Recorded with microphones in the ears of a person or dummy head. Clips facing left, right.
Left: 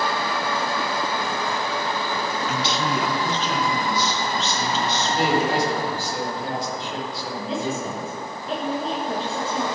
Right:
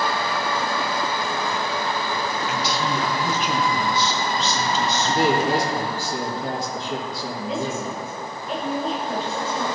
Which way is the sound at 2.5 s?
30° left (ahead or behind).